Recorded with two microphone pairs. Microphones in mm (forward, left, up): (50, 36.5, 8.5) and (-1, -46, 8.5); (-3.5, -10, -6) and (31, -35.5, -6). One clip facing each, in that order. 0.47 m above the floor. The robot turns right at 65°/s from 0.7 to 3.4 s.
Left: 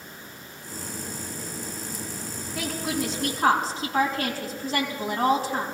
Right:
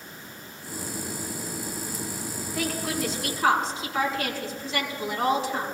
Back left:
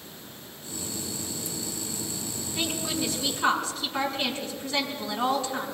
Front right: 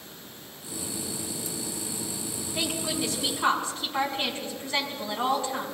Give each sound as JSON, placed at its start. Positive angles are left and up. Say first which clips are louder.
{"t": 2.5, "sound": "a woman speaking", "louder": "even, even", "azimuth_deg": -35, "distance_m": 4.5}